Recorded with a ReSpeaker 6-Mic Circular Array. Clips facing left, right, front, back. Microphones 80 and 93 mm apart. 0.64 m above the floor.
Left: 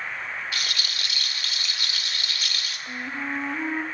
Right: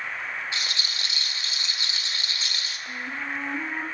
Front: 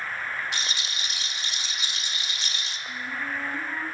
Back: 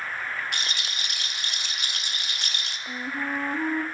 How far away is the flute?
About 1.6 m.